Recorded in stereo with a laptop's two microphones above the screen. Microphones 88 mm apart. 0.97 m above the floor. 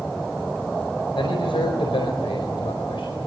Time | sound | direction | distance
1.1 | a man speaking | 75° left (ahead or behind) | 4.5 m